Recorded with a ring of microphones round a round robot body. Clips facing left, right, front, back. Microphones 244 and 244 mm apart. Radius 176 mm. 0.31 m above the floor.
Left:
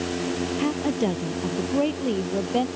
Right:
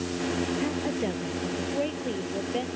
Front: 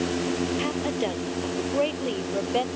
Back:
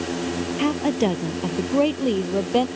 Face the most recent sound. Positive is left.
turn(degrees=145)